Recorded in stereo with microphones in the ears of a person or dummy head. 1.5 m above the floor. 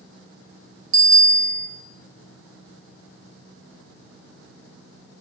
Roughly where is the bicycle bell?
Right.